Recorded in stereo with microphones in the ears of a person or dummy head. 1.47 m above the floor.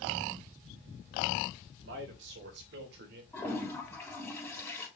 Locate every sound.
1.8 s a man speaking: 70° right (ahead or behind), 3.5 m; by 3.2 s 60° right (ahead or behind), 2.5 m
3.3 s a toilet flushing: 5° left (ahead or behind), 3.5 m